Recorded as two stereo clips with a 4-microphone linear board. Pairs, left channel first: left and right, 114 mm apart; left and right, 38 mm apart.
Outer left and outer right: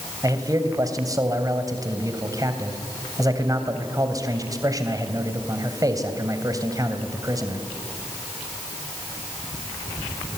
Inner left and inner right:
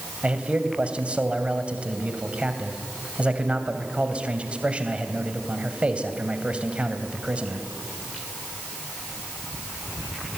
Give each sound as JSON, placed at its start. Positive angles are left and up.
{"t": 0.2, "sound": "a man speaking", "side_deg": -30, "distance_m": 2.5}